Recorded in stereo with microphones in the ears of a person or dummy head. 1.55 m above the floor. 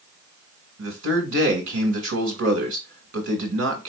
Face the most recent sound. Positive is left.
turn(degrees=-75)  # may be behind; listen again after turning